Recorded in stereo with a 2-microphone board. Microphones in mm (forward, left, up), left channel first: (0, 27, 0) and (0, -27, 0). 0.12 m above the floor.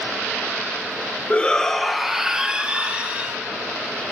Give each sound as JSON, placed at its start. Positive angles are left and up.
{"t": 1.3, "sound": "a shout", "side_deg": 25, "distance_m": 1.4}